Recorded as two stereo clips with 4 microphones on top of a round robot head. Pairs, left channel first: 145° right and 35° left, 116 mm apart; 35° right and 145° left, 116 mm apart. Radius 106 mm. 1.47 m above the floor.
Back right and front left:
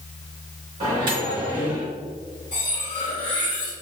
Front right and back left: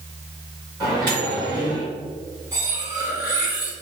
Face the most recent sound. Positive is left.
turn(degrees=-150)